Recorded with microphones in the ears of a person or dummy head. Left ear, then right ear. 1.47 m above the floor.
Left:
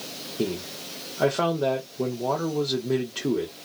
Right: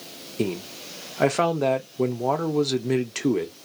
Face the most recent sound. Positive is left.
turn(degrees=-60)  # may be behind; listen again after turning